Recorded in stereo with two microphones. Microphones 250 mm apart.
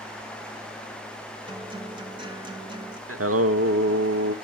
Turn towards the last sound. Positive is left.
turn(degrees=-65)  # may be behind; listen again after turning